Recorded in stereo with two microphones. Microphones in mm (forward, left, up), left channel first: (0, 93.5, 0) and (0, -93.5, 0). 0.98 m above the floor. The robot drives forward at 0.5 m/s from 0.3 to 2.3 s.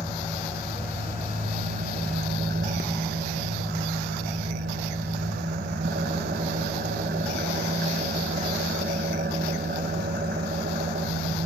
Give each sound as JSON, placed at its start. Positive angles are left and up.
{"t": 0.0, "sound": "an engine running", "side_deg": -25, "distance_m": 1.2}